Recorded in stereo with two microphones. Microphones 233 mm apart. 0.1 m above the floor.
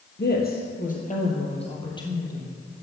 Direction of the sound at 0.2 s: 45° left (ahead or behind).